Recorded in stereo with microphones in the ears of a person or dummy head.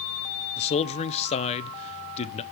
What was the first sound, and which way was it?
A man speaking, 30° left (ahead or behind).